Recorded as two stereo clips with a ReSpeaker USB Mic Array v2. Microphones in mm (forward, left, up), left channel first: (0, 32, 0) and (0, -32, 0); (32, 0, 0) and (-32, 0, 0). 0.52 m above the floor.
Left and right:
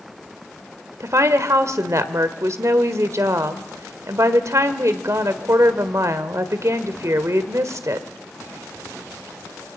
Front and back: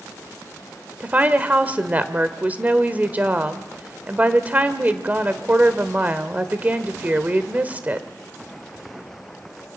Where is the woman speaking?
120° right, 1.4 m.